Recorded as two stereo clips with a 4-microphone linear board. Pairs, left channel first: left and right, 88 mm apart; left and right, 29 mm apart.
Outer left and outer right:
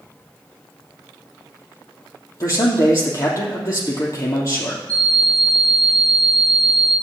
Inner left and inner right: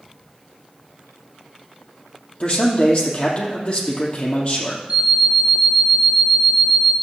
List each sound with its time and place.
2.4 s a man speaking: 35° left (ahead or behind), 3 m
4.9 s an alarm clock: 45° right (ahead or behind), 1.7 m